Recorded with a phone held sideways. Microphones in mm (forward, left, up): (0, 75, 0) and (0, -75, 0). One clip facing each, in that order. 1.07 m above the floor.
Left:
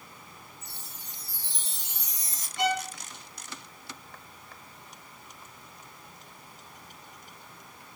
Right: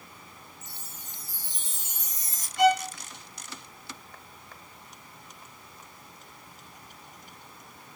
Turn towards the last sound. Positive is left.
turn(degrees=0)  # may be behind; listen again after turning